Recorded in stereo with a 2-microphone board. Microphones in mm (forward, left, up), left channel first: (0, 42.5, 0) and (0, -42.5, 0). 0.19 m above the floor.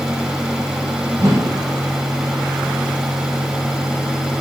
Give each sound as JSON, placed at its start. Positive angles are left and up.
{"t": 1.2, "sound": "a whoosh", "side_deg": -45, "distance_m": 0.6}